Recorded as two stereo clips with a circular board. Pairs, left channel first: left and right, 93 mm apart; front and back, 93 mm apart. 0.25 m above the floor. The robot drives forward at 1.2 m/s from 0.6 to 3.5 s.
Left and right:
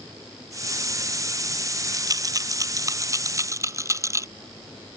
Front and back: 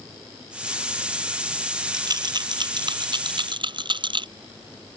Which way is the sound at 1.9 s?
135° right.